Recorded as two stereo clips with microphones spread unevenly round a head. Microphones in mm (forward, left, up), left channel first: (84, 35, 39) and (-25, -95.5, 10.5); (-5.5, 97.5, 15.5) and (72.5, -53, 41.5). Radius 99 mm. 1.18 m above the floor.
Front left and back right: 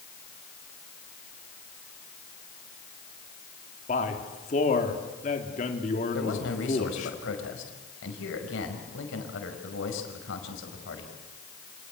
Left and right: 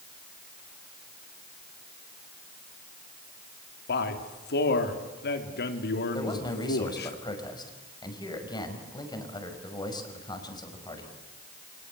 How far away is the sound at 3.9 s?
About 3 m.